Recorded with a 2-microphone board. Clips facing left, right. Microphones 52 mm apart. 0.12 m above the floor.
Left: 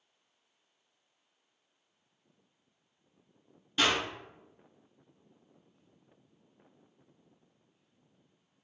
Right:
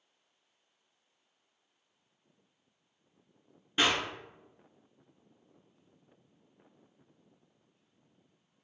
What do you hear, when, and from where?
3.8 s a clap: 30° right (ahead or behind), 1.1 m